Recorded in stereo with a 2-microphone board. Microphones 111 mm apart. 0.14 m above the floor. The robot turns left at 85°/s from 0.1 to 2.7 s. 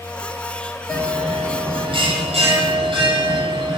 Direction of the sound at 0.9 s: 35° left.